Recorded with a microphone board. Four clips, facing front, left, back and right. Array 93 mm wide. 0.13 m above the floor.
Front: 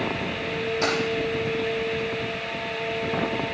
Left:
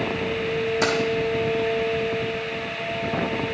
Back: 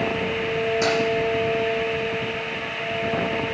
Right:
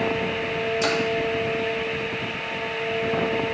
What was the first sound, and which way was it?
Keys jangling, 95° left.